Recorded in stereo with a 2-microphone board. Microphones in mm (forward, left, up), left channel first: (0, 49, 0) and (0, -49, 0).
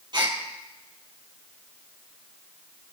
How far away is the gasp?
About 2.5 m.